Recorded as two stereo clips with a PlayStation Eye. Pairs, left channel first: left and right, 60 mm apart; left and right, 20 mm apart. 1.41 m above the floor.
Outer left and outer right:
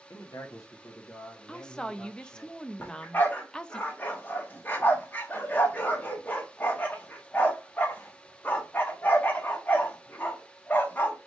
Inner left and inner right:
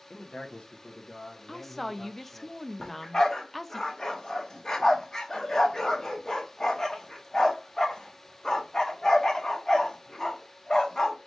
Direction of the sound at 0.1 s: 80° left.